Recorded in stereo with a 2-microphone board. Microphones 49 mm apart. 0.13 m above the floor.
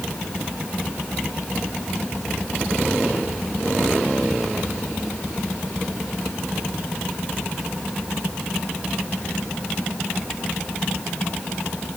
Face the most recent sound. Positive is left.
No sound to turn to.